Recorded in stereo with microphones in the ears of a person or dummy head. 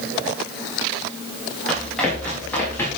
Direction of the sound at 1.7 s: Centre (ahead or behind).